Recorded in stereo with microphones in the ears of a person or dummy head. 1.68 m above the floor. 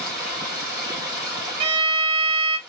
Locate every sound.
0.0 s running water: 20° right (ahead or behind), 1.7 m
1.6 s a violin: 30° right (ahead or behind), 0.7 m